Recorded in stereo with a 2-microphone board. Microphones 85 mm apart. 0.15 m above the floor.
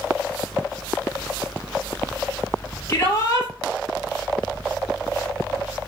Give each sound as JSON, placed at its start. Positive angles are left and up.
{"t": 2.9, "sound": "a shout", "side_deg": 30, "distance_m": 3.5}